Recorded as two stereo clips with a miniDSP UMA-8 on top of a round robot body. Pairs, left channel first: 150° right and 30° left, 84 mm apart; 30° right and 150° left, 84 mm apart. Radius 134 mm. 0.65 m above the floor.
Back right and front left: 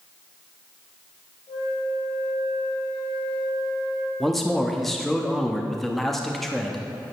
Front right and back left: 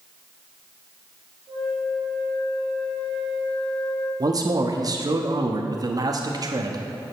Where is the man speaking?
125° left, 1.1 m.